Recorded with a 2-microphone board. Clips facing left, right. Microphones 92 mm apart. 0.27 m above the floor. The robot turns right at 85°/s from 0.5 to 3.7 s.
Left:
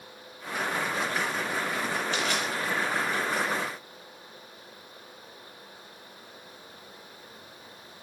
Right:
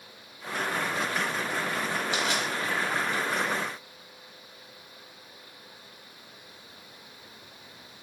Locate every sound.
2.1 s crushing: 15° right (ahead or behind), 0.7 m; by 2.5 s 25° right (ahead or behind), 0.7 m